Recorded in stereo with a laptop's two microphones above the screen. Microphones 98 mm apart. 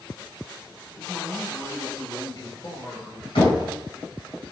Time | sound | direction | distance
1.0 | a man speaking | 45° left (ahead or behind) | 1.5 m
3.4 | knocking | 80° left | 4.5 m